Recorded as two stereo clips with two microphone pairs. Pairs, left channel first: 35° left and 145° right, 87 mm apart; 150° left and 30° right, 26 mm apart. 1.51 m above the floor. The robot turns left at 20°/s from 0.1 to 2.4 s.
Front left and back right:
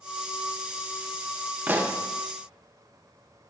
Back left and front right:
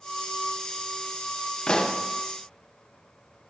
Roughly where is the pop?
Behind.